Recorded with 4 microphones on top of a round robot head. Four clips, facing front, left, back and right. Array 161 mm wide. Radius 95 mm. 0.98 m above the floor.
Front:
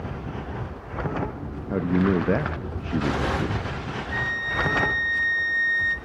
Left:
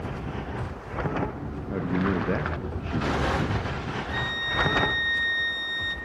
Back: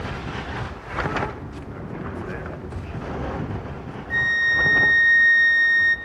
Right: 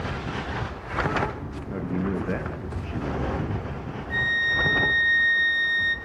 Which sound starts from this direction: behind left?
A flute, at 4.1 s.